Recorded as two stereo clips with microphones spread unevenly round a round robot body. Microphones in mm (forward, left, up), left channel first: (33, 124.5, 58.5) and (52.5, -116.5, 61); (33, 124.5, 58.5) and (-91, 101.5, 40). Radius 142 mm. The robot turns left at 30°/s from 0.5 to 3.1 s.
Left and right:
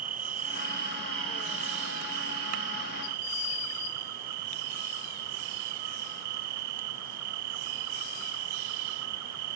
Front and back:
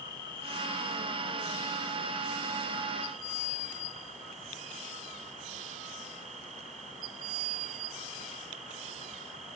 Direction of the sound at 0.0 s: 30° right.